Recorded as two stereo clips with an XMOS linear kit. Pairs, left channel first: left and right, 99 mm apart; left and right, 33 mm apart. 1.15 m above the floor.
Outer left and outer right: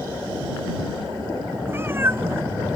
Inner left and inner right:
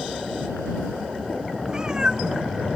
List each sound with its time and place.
1.7 s a cat meowing: 25° right (ahead or behind)